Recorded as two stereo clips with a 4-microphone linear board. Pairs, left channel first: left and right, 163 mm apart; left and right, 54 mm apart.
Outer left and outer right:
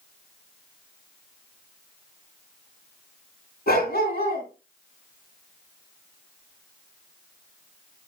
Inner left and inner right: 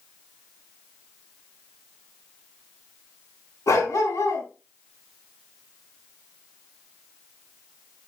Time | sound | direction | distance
3.7 | a dog barking | 70° left (ahead or behind) | 3.5 m